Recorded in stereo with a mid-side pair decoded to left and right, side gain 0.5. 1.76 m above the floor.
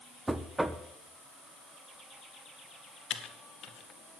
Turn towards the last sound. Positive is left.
turn(degrees=60)